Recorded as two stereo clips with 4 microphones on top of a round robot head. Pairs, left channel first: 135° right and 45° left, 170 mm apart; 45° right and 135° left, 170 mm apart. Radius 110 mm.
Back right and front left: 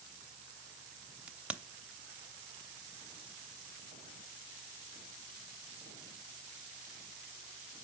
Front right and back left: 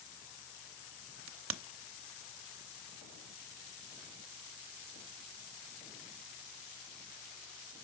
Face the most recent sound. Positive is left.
turn(degrees=130)